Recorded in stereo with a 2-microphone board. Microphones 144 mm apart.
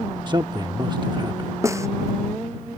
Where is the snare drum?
20° right (ahead or behind).